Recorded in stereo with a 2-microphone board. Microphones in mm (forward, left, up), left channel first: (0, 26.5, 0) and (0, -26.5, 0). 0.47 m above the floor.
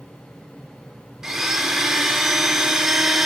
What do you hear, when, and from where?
1.2 s a blender: 10° right (ahead or behind), 1.0 m